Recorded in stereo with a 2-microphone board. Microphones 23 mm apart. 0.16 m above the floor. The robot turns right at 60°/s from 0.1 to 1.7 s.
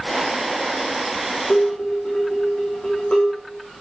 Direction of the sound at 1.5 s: 40° left (ahead or behind).